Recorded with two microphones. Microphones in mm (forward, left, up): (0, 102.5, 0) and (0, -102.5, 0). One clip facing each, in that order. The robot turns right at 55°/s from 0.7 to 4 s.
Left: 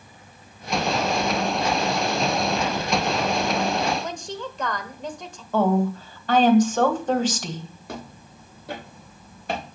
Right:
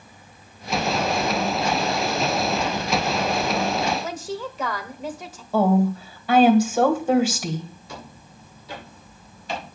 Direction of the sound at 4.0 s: 5° right (ahead or behind).